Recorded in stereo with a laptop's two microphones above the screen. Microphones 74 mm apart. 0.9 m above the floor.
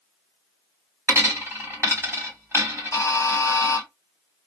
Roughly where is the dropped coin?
Right.